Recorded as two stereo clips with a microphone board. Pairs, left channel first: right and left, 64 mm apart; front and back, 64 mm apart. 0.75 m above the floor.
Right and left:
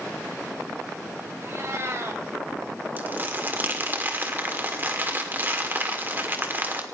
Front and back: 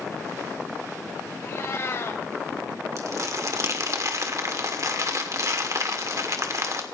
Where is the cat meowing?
45° left, 2.5 m.